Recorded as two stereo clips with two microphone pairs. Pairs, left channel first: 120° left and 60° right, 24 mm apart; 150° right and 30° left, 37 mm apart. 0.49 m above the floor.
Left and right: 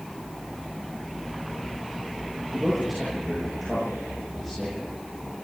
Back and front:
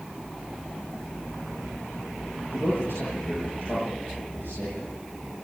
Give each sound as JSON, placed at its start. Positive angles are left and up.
{"t": 2.5, "sound": "a man speaking", "azimuth_deg": -140, "distance_m": 9.0}